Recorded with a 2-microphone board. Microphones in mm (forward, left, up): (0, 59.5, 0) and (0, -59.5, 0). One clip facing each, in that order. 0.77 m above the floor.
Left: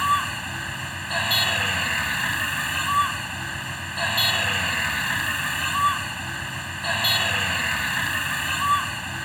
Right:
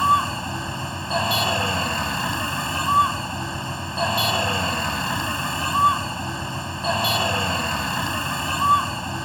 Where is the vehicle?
30° right (ahead or behind).